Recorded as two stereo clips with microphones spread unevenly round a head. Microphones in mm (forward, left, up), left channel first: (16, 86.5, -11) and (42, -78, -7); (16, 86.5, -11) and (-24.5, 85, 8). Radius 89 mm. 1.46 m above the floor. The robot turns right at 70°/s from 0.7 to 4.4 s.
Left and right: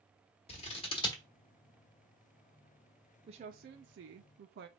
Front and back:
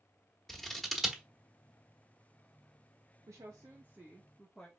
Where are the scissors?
120° left, 1.2 m; by 1.2 s 160° left, 1.2 m.